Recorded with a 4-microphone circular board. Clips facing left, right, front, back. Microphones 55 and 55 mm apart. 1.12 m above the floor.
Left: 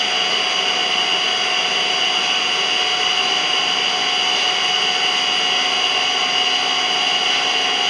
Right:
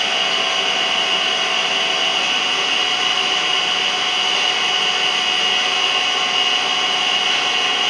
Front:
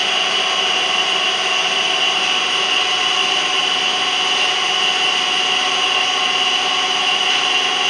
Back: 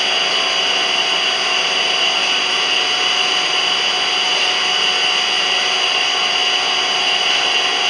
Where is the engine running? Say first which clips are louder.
Right 1 dB, even; 145° right, 2 m.